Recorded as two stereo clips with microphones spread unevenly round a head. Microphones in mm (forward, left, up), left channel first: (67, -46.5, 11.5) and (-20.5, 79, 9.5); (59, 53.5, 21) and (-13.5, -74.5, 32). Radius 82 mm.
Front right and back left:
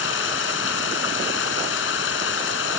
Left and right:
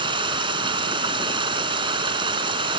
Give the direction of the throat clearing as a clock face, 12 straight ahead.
No throat clearing in this recording.